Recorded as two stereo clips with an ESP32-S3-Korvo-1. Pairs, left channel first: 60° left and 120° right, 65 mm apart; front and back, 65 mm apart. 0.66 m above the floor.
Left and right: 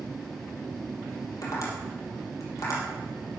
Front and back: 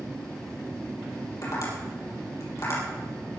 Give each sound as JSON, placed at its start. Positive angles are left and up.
{"t": 1.4, "sound": "tapping", "azimuth_deg": 30, "distance_m": 5.0}